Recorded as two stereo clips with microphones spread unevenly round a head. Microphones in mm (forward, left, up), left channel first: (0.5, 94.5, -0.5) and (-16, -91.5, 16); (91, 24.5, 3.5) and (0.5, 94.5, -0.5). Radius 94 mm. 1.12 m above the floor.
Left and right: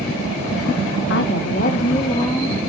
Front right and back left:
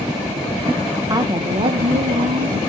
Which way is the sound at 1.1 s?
90° left.